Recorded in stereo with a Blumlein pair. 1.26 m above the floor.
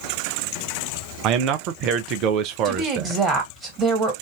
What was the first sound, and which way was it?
A man speaking, 40° right.